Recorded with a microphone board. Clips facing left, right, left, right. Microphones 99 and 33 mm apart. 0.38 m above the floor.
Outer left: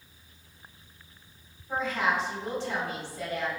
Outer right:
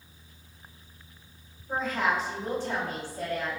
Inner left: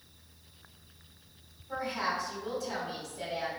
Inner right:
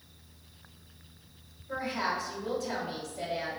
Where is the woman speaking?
45° right (ahead or behind), 2.0 m.